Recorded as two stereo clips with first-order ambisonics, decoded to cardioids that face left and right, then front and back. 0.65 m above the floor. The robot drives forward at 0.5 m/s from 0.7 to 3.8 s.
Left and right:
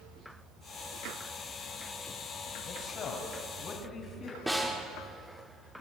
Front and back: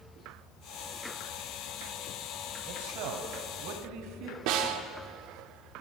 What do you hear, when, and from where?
2.7 s a man speaking: 150° left, 3 m; by 4.4 s 155° left, 3.5 m
4.5 s a snare drum: 175° right, 2 m